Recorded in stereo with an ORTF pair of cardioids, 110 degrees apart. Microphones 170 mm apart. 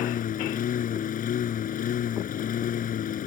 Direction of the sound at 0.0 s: 55° left.